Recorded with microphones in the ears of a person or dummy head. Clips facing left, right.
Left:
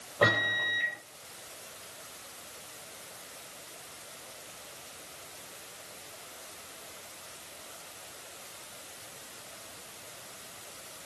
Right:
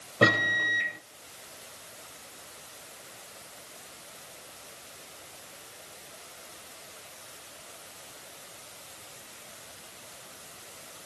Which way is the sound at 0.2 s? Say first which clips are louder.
Right 3 dB; 25° right (ahead or behind).